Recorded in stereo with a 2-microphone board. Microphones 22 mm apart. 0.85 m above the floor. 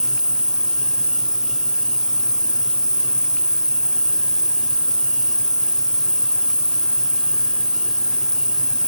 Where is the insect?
50° left (ahead or behind), 0.9 m.